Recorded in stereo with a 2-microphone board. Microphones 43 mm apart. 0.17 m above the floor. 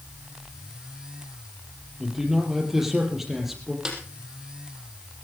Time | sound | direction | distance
2.0 | a man speaking | 10° right (ahead or behind) | 5 m
3.9 | a snare drum | 15° right (ahead or behind) | 4 m